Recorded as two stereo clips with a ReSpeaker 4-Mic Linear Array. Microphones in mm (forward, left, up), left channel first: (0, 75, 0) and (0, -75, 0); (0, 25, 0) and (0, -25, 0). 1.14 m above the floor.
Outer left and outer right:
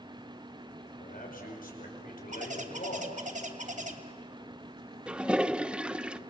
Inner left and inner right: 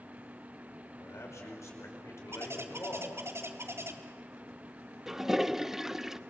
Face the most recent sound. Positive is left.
turn(degrees=-5)  # may be behind; listen again after turning